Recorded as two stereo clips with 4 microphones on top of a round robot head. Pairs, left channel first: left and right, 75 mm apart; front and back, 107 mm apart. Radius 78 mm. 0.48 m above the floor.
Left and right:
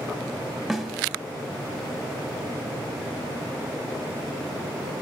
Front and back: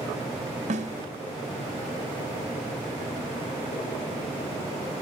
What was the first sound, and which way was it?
A snare drum, straight behind.